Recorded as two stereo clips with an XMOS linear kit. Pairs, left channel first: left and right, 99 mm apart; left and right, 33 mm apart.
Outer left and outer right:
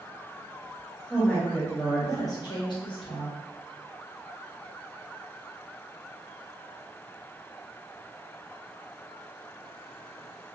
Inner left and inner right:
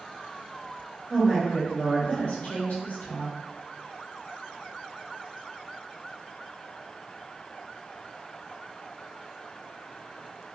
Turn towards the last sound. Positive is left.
turn(degrees=70)  # may be behind; listen again after turning